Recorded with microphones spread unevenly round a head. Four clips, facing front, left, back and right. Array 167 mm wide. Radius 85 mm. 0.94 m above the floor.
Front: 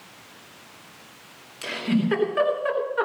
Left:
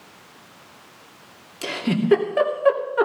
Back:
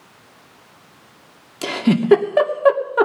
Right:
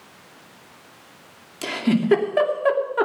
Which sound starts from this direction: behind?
A giggle, at 1.6 s.